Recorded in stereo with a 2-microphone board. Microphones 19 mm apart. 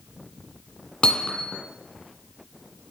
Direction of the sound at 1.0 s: 60° left (ahead or behind).